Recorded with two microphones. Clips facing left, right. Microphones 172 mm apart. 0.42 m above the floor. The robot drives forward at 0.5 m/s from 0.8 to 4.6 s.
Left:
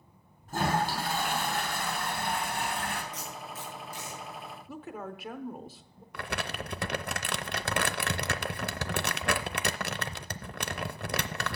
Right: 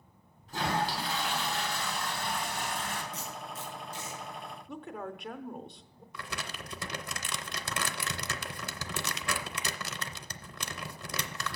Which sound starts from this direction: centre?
A woman speaking, at 4.7 s.